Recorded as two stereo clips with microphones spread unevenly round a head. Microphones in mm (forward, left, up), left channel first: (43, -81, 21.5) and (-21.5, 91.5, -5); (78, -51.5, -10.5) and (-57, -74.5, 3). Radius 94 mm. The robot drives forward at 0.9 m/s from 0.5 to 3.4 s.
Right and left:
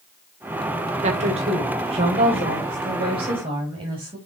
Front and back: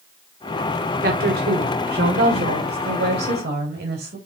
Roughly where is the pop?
I don't hear a pop.